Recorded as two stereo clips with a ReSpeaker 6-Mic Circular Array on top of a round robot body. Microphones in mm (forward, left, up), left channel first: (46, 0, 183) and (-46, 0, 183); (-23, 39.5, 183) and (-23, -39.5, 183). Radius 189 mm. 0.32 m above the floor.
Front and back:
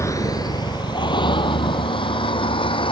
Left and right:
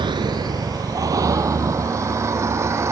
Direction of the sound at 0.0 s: 60° right.